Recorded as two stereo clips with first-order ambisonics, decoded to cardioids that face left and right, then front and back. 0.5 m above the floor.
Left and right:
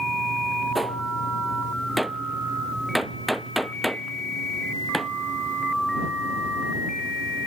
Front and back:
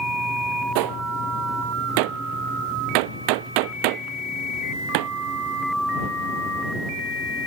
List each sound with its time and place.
0.8 s a gunshot: straight behind